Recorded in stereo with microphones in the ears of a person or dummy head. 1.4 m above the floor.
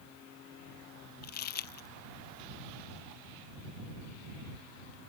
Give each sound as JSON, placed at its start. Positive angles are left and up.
{"t": 1.2, "sound": "crumpling", "side_deg": 45}